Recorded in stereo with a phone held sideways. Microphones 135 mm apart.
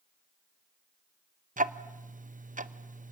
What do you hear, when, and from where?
1.6 s ticking: 75° right (ahead or behind), 0.7 m